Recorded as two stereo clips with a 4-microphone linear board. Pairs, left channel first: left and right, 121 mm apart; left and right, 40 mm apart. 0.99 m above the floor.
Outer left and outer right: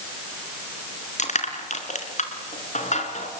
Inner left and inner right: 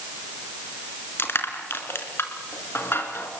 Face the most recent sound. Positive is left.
turn(degrees=75)  # may be behind; listen again after turning